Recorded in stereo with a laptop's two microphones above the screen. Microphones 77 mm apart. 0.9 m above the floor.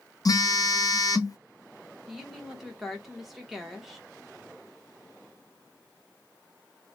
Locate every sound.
0.2 s a phone buzzing: 50° left (ahead or behind), 0.5 m
2.1 s a woman speaking: 5° right (ahead or behind), 0.8 m